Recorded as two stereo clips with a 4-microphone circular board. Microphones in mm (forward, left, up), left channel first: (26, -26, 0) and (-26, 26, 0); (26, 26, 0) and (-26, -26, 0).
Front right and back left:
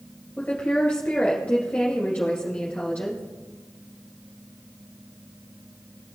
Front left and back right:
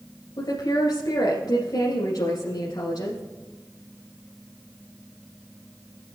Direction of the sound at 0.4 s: 25° left.